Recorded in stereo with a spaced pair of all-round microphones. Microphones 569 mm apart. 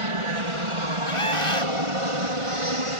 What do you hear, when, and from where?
0.0 s an aircraft: 60° right (ahead or behind); by 3.0 s 65° right (ahead or behind)
1.1 s a scream: 60° left (ahead or behind)